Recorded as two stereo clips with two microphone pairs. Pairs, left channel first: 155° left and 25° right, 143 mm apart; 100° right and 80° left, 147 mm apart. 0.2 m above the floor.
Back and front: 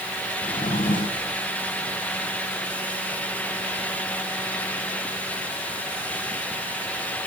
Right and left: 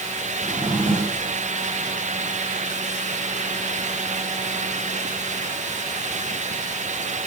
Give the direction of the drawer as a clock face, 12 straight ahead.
7 o'clock.